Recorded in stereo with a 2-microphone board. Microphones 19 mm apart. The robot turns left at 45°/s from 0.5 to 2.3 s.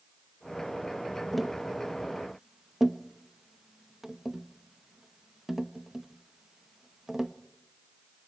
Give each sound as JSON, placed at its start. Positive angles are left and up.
{"t": 1.3, "sound": "tapping", "side_deg": 0, "distance_m": 0.7}